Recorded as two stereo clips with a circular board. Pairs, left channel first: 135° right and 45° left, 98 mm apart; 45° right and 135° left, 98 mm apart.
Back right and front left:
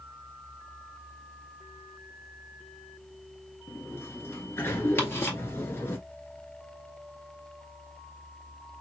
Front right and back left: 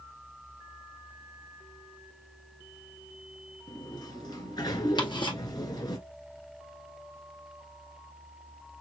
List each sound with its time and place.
3.7 s a sliding door: 75° right, 1.4 m
5.0 s ticking: 70° right, 1.7 m